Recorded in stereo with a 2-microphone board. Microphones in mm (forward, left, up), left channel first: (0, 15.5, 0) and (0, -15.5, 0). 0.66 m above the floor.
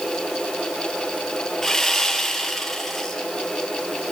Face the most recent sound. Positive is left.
turn(degrees=10)  # may be behind; listen again after turning